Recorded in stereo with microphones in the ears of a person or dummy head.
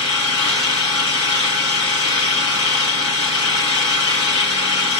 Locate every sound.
0.0 s an engine running: 25° left (ahead or behind), 1.4 m